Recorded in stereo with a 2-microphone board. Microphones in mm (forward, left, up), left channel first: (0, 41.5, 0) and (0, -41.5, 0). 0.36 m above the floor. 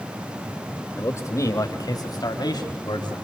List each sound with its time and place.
1.0 s a man speaking: 30° left (ahead or behind), 1.6 m; by 3.1 s 60° left (ahead or behind), 3 m